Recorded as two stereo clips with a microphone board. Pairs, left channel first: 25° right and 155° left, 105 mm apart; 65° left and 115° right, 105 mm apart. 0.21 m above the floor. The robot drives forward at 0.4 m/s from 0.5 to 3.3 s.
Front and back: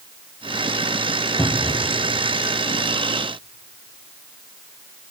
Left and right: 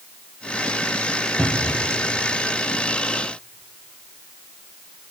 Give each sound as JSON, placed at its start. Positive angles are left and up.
{"t": 1.4, "sound": "a cupboard door", "azimuth_deg": -45, "distance_m": 1.1}